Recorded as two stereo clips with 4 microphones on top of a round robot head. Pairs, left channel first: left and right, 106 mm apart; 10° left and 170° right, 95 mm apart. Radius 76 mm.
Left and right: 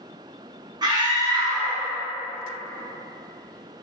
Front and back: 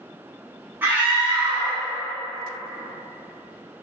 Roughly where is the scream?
Right.